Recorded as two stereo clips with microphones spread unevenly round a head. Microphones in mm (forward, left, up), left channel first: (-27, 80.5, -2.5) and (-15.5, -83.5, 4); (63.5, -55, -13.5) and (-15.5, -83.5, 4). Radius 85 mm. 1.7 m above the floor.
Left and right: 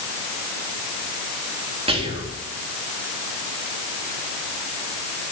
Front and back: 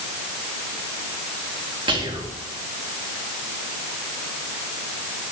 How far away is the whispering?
About 3 m.